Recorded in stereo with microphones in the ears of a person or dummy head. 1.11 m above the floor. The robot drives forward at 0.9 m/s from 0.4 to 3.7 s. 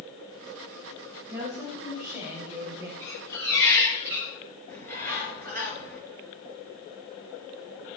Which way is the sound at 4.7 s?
15° left (ahead or behind).